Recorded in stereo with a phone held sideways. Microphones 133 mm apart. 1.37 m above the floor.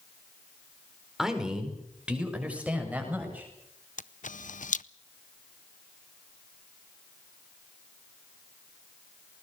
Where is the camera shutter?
70° left (ahead or behind), 0.5 m.